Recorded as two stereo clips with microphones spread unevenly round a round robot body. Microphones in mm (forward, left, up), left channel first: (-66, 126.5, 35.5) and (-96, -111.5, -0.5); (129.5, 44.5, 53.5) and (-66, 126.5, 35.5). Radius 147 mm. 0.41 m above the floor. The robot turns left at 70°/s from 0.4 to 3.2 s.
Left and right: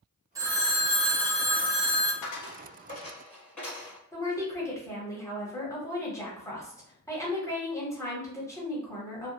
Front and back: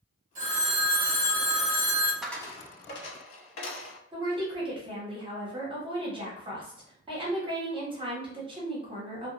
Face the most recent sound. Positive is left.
turn(degrees=165)